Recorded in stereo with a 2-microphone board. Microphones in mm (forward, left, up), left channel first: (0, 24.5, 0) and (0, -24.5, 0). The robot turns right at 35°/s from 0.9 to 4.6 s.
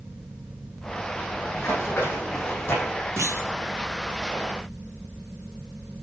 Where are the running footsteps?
65° left (ahead or behind), 3 m; by 2.9 s 70° left (ahead or behind), 3.5 m.